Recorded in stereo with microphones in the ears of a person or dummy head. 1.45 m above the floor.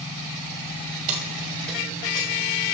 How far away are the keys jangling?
About 0.8 m.